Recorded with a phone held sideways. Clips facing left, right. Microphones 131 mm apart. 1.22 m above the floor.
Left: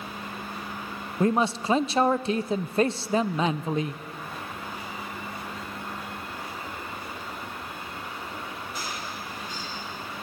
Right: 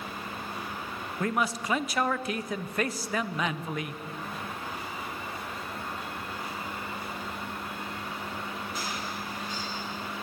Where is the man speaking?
30° left (ahead or behind), 0.6 m.